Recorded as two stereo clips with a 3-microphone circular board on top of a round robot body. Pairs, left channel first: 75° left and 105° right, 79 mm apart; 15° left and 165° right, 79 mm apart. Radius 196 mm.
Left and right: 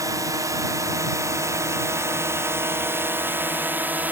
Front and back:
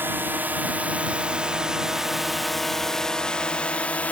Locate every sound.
0.0 s a drone: 110° right; by 4.1 s 45° right